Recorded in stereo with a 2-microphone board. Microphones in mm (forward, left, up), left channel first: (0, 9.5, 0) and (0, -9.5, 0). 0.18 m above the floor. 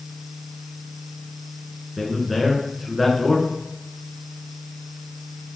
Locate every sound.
2.0 s a man speaking: 10° right (ahead or behind), 1.7 m